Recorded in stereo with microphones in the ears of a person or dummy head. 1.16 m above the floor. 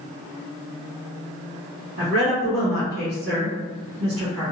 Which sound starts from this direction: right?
A woman speaking, at 2.0 s.